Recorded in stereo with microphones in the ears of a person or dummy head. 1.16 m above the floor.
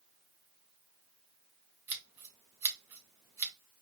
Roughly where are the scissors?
Centre.